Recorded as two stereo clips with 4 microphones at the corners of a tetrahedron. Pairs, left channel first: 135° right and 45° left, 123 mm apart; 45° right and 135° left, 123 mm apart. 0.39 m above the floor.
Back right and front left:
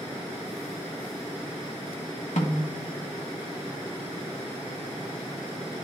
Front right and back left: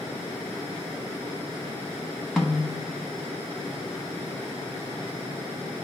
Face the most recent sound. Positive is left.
turn(degrees=-130)